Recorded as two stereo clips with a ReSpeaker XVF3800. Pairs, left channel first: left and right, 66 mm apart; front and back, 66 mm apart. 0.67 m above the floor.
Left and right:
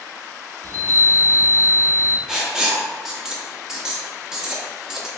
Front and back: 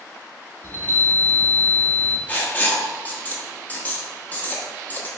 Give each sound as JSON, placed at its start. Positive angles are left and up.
{"t": 0.6, "sound": "a chime", "azimuth_deg": -55, "distance_m": 1.2}
{"t": 2.3, "sound": "writing", "azimuth_deg": -15, "distance_m": 0.6}